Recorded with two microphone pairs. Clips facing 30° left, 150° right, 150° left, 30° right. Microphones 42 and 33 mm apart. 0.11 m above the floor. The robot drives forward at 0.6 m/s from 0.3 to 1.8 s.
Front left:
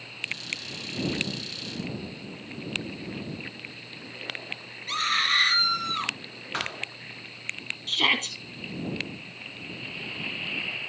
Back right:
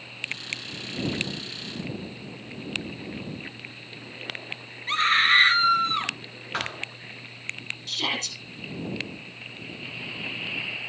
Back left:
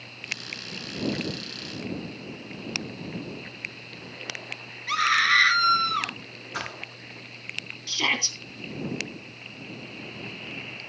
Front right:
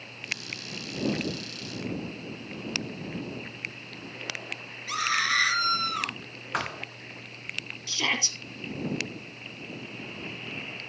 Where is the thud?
65° right, 2.5 m.